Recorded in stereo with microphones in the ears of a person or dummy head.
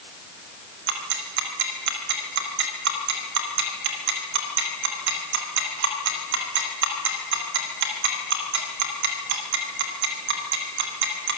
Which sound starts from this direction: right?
Ticking, at 0.9 s.